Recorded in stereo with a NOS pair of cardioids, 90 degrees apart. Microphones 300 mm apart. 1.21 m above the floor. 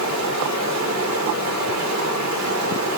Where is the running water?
70° right, 4 m.